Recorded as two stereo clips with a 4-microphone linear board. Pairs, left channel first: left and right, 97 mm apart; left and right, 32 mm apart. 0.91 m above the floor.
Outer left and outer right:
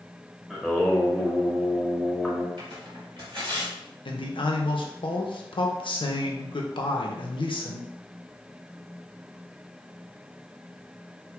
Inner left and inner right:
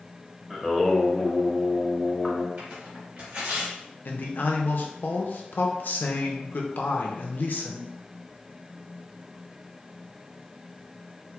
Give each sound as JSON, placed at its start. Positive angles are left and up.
{"t": 0.5, "sound": "singing", "side_deg": 0, "distance_m": 0.6}
{"t": 2.6, "sound": "tearing paper", "side_deg": -60, "distance_m": 1.3}
{"t": 4.0, "sound": "a man speaking", "side_deg": 60, "distance_m": 0.6}